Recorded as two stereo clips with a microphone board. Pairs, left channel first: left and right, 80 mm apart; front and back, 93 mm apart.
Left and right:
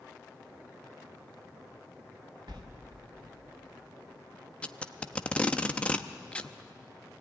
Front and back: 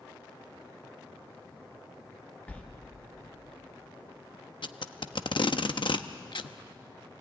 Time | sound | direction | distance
2.5 | a sliding door | 75° right | 1.9 m
4.6 | tape being pulled | 15° left | 0.8 m